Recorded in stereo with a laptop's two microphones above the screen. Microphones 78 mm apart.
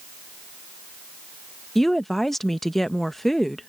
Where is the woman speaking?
5° left (ahead or behind).